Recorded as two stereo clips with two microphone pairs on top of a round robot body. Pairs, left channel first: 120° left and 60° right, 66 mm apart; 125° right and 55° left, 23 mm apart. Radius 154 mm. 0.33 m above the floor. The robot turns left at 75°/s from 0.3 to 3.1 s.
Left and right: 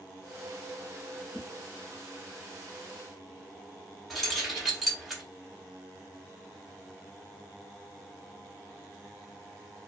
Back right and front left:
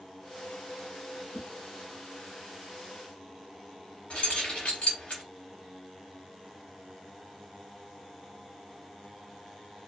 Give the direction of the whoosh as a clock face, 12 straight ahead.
11 o'clock.